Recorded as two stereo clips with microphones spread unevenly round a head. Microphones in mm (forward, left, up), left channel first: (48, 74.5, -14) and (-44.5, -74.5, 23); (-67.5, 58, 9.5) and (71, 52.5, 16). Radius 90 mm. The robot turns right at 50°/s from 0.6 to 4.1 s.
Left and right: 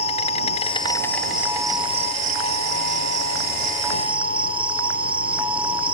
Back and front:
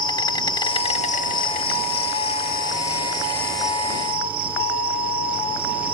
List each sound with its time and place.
0.0 s an insect: 120° left; by 6.0 s 65° right